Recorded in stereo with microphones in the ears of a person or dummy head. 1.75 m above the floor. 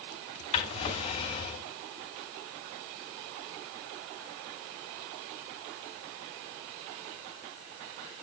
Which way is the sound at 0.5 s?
35° left (ahead or behind).